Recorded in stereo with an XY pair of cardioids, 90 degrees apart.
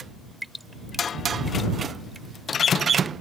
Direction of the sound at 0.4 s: 10° right.